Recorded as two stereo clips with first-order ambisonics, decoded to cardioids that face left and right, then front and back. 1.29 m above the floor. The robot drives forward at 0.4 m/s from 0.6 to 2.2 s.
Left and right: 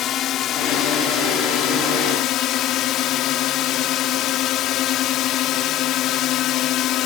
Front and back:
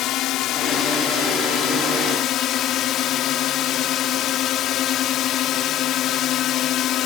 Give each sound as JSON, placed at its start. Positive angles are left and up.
{"t": 0.0, "sound": "a drone", "azimuth_deg": 40}